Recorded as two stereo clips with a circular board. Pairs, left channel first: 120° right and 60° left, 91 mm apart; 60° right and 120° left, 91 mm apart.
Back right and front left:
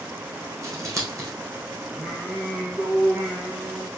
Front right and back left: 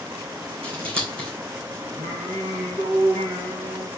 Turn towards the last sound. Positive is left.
turn(degrees=145)